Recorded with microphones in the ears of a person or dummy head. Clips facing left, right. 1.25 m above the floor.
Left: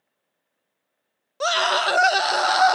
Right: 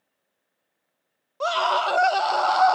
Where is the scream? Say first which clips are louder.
Even; 20° left (ahead or behind), 0.6 m.